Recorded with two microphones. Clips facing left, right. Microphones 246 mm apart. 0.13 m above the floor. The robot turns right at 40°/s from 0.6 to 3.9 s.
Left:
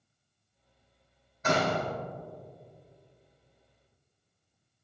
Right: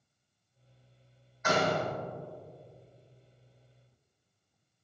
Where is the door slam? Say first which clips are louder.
Left 1 dB; 40° left (ahead or behind), 4.5 m; by 1.9 s 20° left (ahead or behind), 4.5 m.